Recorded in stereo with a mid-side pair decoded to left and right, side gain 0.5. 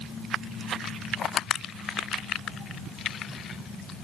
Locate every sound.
Only background noise.